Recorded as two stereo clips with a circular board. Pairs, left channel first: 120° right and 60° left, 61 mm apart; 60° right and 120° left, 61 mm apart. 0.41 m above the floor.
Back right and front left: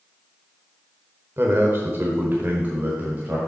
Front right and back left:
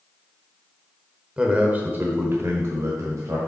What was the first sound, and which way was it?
A man speaking, 55° left.